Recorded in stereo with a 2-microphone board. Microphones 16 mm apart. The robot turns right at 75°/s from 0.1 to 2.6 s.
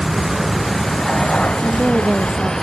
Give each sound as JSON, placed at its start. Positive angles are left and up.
{"t": 0.0, "sound": "a vehicle", "azimuth_deg": -35}
{"t": 1.6, "sound": "a woman speaking", "azimuth_deg": -175}